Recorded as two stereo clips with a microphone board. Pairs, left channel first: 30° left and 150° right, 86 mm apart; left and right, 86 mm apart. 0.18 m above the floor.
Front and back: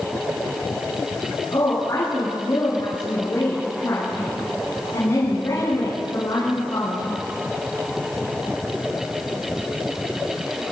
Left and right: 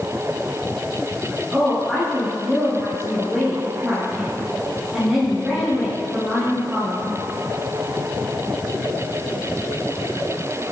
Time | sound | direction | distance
1.5 | a woman speaking | straight ahead | 6 m